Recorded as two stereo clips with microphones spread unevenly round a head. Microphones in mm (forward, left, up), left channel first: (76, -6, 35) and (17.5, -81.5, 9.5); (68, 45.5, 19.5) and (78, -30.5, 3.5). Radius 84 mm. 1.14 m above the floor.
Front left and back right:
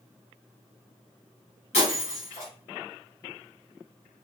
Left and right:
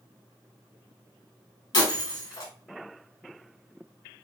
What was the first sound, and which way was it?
Breaking glass, 95° left.